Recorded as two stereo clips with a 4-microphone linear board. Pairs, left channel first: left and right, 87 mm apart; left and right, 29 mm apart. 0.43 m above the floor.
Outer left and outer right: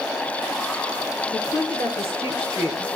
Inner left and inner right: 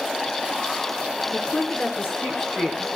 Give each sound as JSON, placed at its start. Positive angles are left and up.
{"t": 1.3, "sound": "a woman speaking", "side_deg": 80, "distance_m": 4.0}